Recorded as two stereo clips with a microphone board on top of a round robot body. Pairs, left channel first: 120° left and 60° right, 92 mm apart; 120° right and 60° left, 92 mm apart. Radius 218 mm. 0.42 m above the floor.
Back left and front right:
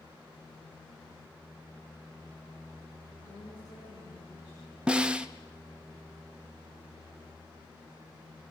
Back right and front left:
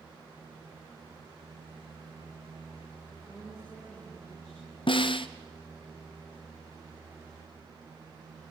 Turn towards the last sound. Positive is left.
turn(degrees=-140)